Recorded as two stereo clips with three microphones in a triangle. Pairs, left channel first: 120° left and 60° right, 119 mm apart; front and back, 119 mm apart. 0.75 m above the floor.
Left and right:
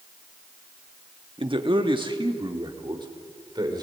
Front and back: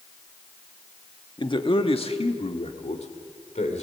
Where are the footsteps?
No footsteps in this recording.